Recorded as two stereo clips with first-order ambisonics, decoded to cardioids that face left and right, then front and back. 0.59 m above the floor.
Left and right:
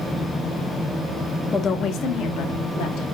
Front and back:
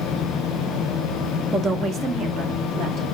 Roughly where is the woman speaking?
Behind left.